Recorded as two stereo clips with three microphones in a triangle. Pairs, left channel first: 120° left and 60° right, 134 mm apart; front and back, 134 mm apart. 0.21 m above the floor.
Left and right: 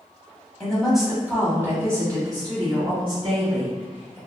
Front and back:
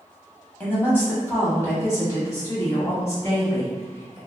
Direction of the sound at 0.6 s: 45° left.